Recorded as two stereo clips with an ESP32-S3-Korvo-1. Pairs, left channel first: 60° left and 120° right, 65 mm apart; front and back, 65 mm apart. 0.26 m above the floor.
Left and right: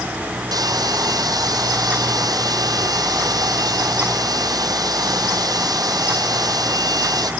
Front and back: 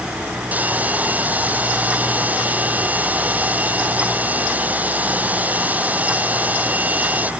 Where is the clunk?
No clunk in this recording.